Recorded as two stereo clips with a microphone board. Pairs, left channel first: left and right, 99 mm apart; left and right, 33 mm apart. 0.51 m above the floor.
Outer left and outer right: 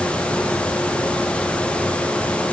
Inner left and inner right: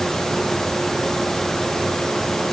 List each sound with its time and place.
Only background noise.